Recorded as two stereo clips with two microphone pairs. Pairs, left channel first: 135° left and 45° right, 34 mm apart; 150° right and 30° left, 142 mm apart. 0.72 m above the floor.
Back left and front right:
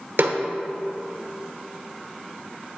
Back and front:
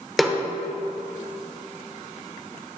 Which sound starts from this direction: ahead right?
A snare drum, at 0.2 s.